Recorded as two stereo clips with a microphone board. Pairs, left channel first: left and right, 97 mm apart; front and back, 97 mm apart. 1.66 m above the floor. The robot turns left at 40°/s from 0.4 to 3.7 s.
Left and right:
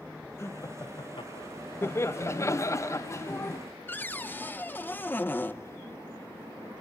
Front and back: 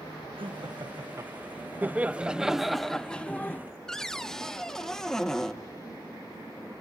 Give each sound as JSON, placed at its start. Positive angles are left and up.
{"t": 0.4, "sound": "laughter", "azimuth_deg": 155, "distance_m": 1.4}
{"t": 1.8, "sound": "laughter", "azimuth_deg": 125, "distance_m": 0.6}
{"t": 3.9, "sound": "a cupboard door", "azimuth_deg": 75, "distance_m": 0.8}